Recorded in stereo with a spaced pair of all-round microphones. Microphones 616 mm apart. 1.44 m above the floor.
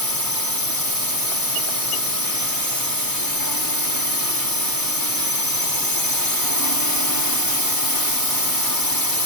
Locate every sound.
0.0 s a drone: 35° left (ahead or behind)